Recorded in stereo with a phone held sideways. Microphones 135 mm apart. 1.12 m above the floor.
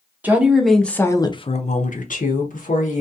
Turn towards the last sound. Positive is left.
turn(degrees=75)  # may be behind; listen again after turning